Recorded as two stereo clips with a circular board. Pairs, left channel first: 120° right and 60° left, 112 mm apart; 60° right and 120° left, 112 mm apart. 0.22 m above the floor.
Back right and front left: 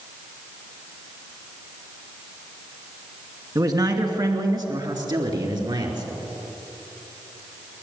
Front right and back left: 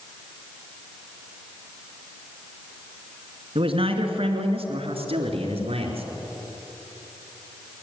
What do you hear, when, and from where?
3.5 s a man speaking: 105° left, 3 m; by 6.1 s 100° left, 4 m